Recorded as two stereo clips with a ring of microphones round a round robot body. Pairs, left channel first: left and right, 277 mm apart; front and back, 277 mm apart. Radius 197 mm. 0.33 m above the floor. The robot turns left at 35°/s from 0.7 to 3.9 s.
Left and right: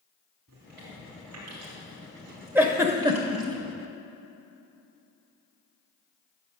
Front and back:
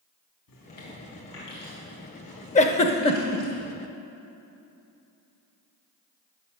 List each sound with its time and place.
0.5 s chewing: 30° right, 3 m; by 3.5 s 130° right, 3 m
2.5 s a giggle: 15° right, 0.6 m; by 3.4 s 50° right, 0.6 m